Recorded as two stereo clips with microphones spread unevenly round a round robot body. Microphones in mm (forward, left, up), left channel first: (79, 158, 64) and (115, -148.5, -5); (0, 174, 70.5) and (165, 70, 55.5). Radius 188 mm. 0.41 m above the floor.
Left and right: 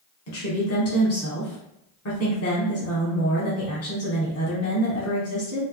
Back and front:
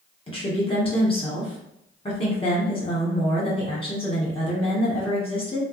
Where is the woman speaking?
105° left, 1.4 m.